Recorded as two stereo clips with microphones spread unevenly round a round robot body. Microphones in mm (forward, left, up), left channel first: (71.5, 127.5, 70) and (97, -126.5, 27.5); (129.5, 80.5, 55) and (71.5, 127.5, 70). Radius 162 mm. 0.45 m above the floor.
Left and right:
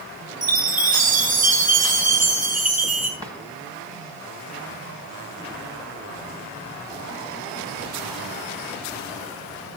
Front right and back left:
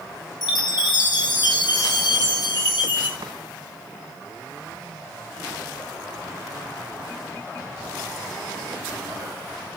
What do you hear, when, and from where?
0.4 s a chime: 25° right, 7 m
3.2 s a drawer: 165° right, 1.2 m